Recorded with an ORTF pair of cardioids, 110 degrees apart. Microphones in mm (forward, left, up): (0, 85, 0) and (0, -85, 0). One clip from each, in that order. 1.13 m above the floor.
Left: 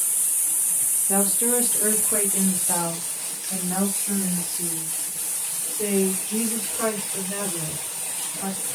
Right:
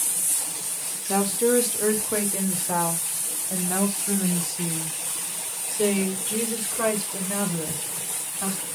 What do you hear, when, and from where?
1.1 s a woman speaking: 10° right, 2.0 m; by 8.6 s 30° right, 6.5 m